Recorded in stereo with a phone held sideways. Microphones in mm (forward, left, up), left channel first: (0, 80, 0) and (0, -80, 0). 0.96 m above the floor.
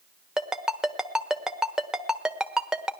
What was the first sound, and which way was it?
A ringtone, 5° right (ahead or behind).